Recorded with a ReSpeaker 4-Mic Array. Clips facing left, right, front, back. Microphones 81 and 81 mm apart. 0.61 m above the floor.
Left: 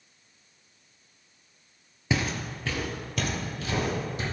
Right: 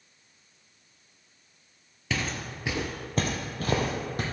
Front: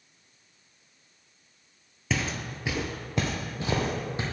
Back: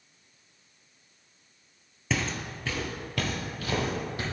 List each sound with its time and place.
2.1 s footsteps: 90° left, 0.6 m; by 4.2 s 65° right, 1.4 m